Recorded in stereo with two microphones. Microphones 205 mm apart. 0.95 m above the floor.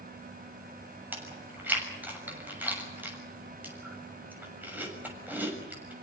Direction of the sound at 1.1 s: 10° right (ahead or behind).